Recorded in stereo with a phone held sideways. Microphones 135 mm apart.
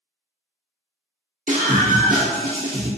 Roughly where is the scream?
Right.